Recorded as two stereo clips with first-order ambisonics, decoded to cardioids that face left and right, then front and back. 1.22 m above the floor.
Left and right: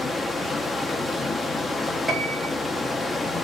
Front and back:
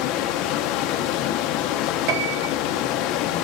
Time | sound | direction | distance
0.0 | running water | 10° left | 0.7 m
2.1 | a piano | 170° right | 2.5 m